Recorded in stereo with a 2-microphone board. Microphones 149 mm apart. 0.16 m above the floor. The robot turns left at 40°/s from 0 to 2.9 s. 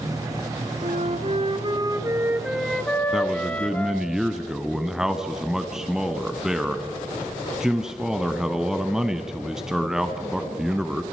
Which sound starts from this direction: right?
A flute, at 0.8 s.